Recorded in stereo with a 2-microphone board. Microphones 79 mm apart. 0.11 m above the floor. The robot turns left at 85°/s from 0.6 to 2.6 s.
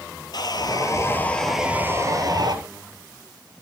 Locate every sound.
0.3 s sawing: 75° left, 1.1 m; by 2.6 s 90° right, 1.1 m